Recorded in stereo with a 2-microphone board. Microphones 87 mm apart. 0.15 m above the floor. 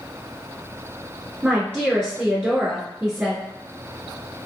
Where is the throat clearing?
No throat clearing in this recording.